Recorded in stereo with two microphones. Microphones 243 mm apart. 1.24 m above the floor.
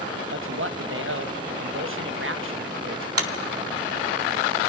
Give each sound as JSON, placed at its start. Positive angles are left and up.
{"t": 0.3, "sound": "a man speaking", "side_deg": -55, "distance_m": 1.2}
{"t": 3.2, "sound": "a clap", "side_deg": -70, "distance_m": 2.0}